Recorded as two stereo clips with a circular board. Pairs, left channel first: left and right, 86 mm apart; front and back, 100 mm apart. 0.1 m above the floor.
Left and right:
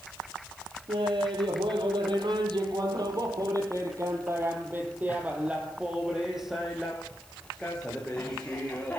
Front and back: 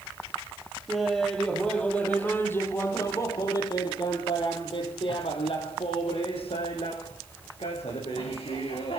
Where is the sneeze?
No sneeze in this recording.